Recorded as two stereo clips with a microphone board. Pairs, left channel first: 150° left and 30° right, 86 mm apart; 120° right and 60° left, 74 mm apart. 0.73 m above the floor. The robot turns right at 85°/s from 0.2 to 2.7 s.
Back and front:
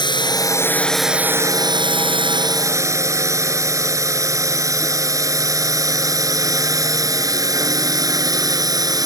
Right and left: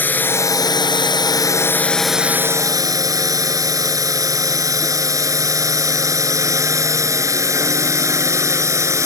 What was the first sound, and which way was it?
A drone, 175° left.